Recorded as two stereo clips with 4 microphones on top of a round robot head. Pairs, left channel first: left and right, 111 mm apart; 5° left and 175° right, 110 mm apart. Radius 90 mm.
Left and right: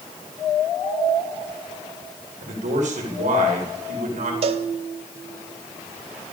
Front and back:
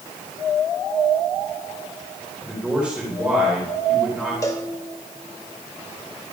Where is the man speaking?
90° right, 4 m.